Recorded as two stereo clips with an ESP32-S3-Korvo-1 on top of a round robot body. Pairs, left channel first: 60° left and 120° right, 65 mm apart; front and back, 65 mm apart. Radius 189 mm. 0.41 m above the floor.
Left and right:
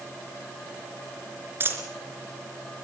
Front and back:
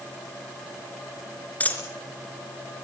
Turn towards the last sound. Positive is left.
turn(degrees=-65)